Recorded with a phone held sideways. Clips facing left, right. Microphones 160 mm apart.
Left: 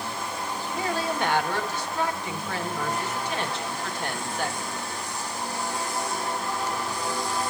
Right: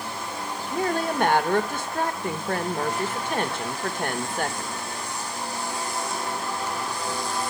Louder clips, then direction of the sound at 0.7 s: Right 4 dB; 50° right (ahead or behind).